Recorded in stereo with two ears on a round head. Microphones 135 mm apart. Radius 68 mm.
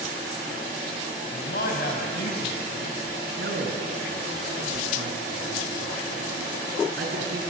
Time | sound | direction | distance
1.3 | a man speaking | 70° left (ahead or behind) | 3.5 m
3.4 | a man speaking | 80° right | 4.5 m